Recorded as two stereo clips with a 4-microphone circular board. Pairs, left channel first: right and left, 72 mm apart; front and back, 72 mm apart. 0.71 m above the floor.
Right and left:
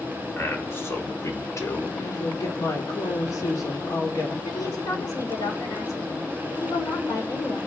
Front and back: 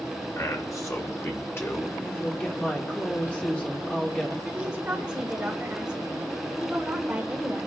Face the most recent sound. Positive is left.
turn(degrees=-105)